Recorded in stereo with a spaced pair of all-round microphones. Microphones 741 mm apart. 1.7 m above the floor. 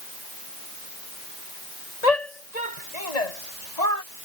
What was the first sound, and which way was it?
A shout, 55° left (ahead or behind).